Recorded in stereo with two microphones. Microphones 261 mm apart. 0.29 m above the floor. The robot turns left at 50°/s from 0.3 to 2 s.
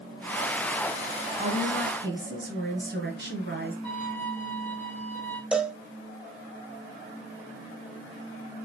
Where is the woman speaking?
40° right, 1.8 m; by 3.8 s 70° right, 1.8 m.